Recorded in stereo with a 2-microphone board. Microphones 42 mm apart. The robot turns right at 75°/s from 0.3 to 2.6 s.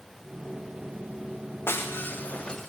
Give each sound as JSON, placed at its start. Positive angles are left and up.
{"t": 1.7, "sound": "breaking glass", "azimuth_deg": 100, "distance_m": 3.0}